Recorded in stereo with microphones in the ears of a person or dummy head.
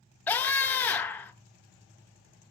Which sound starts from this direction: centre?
A scream, at 0.3 s.